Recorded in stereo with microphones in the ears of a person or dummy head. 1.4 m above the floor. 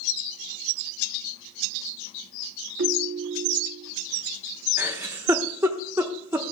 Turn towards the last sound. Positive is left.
turn(degrees=-10)  # may be behind; listen again after turning